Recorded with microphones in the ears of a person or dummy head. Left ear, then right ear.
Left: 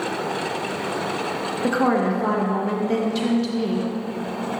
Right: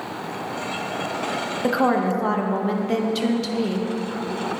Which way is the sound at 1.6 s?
10° right (ahead or behind).